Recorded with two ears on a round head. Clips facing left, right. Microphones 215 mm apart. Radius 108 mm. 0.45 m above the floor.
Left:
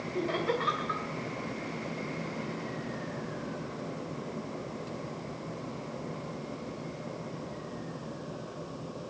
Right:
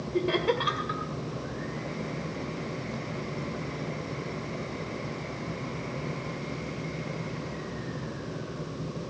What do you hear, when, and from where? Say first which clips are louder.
0.1 s laughter: right 5 dB; 55° right (ahead or behind), 2.5 m